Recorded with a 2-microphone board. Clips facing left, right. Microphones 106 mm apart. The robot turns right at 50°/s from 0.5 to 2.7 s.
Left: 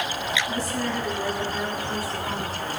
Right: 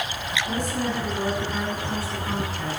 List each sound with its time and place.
0.5 s a woman speaking: 55° right, 7 m; by 2.8 s 55° left, 7 m